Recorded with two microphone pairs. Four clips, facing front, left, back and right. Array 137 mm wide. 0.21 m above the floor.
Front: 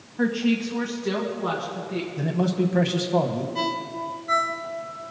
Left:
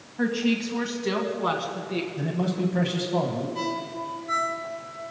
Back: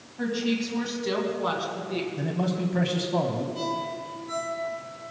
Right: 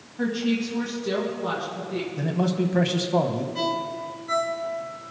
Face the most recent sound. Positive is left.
turn(degrees=0)